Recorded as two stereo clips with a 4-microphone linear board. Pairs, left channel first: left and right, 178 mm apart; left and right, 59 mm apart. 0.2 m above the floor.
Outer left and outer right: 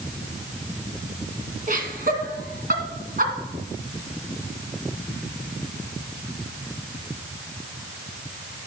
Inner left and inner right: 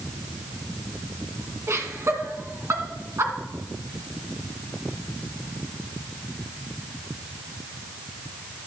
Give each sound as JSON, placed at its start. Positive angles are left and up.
{"t": 1.7, "sound": "laughter", "side_deg": -55, "distance_m": 2.5}